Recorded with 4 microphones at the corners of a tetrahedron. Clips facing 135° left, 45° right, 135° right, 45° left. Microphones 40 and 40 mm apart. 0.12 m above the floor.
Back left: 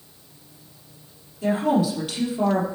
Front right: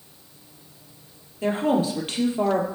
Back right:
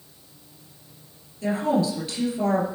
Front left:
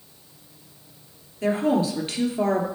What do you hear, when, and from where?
1.4 s a woman speaking: 10° right, 3 m